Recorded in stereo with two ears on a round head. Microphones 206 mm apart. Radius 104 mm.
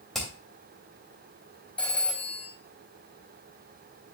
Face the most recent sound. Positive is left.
turn(degrees=5)  # may be behind; listen again after turning